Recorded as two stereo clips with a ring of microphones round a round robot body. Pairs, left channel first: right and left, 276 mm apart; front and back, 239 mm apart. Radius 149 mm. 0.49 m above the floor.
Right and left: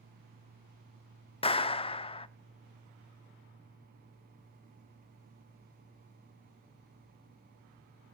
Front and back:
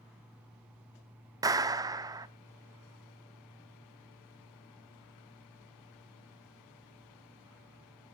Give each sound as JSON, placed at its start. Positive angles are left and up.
{"t": 1.4, "sound": "a clap", "azimuth_deg": -130, "distance_m": 0.6}